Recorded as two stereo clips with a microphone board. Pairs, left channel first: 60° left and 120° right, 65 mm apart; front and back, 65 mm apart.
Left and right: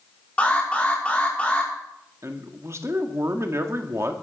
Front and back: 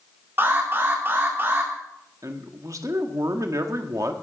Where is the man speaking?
155° right, 1.6 m.